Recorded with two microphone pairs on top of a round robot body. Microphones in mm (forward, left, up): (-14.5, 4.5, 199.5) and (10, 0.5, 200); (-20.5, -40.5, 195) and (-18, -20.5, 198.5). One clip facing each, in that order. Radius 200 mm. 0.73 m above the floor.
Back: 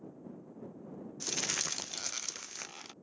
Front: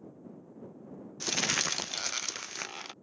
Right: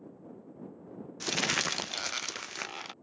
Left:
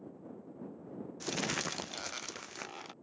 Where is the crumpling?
65° right.